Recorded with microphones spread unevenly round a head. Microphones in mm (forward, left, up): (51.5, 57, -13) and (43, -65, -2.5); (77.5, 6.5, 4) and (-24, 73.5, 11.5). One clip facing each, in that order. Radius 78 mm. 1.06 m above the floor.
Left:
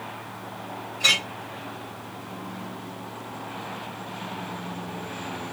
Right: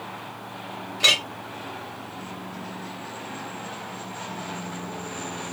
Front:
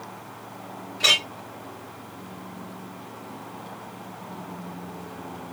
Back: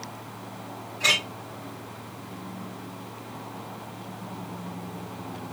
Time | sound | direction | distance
1.0 | a clink | 80° right | 1.7 m